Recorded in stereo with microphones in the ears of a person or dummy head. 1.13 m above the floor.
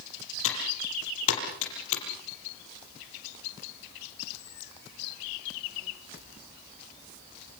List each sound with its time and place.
0.4 s typing on a keyboard: 85° left, 7 m